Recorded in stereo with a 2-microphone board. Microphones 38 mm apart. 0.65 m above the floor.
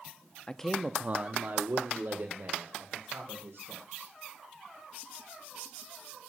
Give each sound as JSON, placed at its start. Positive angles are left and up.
{"t": 0.5, "sound": "a man speaking", "side_deg": 25, "distance_m": 0.6}